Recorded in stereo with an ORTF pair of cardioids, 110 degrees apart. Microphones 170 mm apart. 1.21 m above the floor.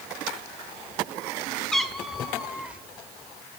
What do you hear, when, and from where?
1.7 s a cat meowing: 5° left, 2 m; by 2.8 s 5° right, 3 m